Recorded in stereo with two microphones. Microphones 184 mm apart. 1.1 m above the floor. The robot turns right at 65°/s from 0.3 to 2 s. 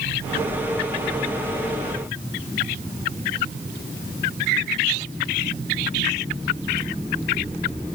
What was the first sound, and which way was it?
Only background noise.